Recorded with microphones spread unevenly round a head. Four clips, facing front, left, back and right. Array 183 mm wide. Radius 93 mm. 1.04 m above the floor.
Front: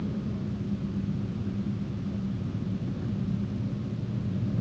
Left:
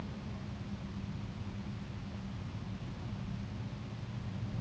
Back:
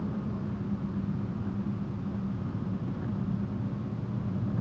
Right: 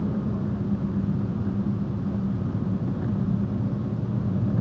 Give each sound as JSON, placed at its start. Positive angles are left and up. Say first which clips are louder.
{"t": 0.0, "sound": "an engine running", "louder": "right 17 dB, front 1 dB", "azimuth_deg": -90}